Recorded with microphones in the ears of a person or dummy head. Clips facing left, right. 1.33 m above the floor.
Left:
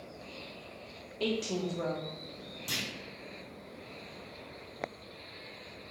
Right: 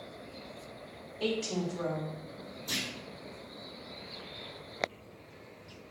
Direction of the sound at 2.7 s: 35° left (ahead or behind).